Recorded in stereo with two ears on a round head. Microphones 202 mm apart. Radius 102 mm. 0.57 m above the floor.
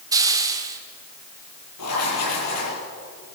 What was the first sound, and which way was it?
A hiss, 15° right (ahead or behind).